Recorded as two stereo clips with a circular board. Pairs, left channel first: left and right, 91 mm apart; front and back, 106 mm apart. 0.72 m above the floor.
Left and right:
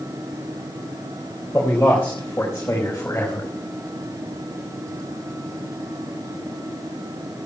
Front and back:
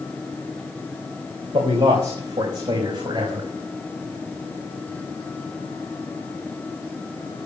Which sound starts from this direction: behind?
A man speaking, at 1.5 s.